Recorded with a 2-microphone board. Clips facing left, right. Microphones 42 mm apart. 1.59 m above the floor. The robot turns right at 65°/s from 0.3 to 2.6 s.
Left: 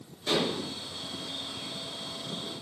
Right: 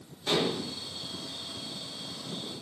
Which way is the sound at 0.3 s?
5° right (ahead or behind).